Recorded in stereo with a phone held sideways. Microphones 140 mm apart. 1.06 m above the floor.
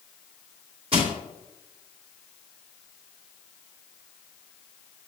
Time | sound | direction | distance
0.9 | crushing | 40° right (ahead or behind) | 3 m